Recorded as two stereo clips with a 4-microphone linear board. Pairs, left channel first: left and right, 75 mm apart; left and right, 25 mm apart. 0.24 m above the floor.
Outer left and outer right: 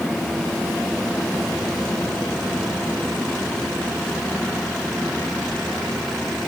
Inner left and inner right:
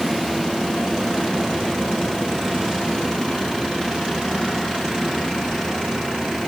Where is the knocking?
I don't hear knocking.